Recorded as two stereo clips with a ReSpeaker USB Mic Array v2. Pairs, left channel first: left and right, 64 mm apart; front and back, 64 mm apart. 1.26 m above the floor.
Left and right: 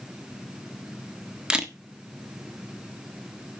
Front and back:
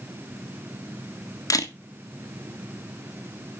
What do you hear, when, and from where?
1.5 s a camera shutter: 15° right, 1.4 m